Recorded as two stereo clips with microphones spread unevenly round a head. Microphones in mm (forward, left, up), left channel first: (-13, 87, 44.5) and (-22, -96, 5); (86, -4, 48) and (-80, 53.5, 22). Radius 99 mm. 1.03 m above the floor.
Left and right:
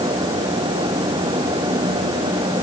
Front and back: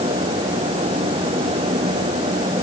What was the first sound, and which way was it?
Only background noise.